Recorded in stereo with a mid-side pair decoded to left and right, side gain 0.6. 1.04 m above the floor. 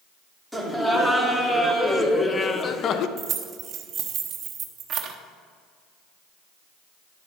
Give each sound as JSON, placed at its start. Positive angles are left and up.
{"t": 0.5, "sound": "laughter", "azimuth_deg": 0, "distance_m": 2.5}
{"t": 3.2, "sound": "keys jangling", "azimuth_deg": -50, "distance_m": 1.1}